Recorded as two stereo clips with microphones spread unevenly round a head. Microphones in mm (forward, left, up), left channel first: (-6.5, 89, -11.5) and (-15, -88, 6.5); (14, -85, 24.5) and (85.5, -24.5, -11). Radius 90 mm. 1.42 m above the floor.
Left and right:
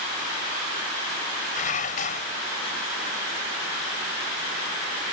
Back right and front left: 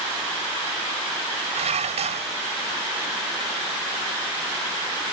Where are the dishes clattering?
35° left.